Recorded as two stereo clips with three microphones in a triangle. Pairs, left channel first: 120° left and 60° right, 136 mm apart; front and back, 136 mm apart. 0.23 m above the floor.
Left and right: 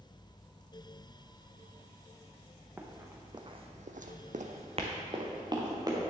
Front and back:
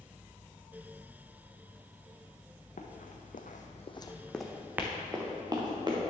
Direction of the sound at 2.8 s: 15° left.